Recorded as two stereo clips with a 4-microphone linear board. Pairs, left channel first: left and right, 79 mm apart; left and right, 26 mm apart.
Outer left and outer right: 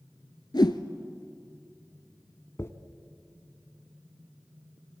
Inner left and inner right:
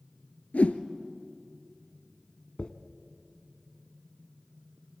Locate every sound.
0.5 s a whoosh: 75° left (ahead or behind), 1.0 m
2.6 s a dropped coin: 40° left (ahead or behind), 0.9 m